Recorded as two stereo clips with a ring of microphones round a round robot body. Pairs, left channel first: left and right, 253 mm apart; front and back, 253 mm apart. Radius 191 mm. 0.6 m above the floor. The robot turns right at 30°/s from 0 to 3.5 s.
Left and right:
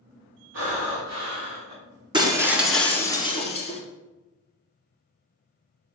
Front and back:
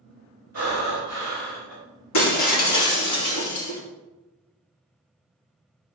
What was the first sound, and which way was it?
Breathing, 115° right.